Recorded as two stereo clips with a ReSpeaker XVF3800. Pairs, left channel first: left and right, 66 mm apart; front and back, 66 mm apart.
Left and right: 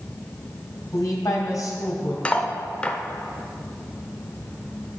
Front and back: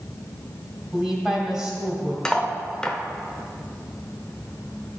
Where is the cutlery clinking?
60° left, 0.7 m.